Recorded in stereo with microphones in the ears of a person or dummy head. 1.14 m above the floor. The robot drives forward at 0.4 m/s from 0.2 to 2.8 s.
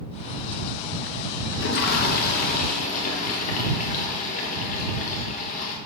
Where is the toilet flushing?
60° left (ahead or behind), 1.0 m; by 5.8 s 45° left (ahead or behind), 1.3 m.